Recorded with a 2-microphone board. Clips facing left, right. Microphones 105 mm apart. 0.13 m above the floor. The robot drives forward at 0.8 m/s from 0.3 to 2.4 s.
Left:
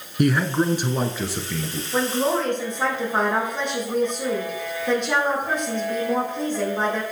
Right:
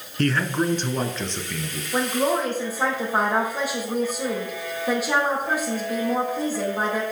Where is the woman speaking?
10° right (ahead or behind), 5.5 m.